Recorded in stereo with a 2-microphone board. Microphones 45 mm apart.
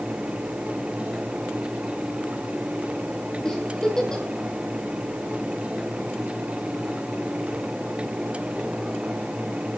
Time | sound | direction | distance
3.5 | a giggle | 15° left (ahead or behind) | 3 m